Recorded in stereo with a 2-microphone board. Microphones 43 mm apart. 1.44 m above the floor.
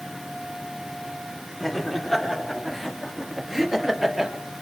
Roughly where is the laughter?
Centre.